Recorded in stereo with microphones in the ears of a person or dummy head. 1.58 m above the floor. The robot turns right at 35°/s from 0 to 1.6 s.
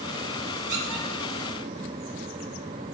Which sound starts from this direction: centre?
A squeak, at 0.7 s.